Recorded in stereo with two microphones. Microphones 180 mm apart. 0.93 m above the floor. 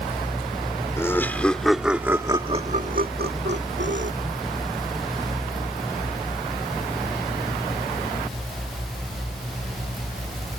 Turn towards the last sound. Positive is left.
turn(degrees=-85)